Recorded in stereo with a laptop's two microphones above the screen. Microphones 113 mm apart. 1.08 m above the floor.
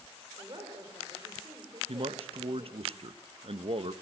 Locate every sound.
0.4 s a woman speaking: 45° right (ahead or behind), 5 m
1.9 s a man speaking: 55° right (ahead or behind), 0.9 m